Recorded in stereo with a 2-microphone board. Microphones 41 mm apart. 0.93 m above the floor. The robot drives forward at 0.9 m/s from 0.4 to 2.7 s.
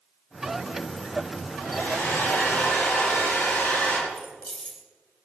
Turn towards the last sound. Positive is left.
turn(degrees=25)  # may be behind; listen again after turning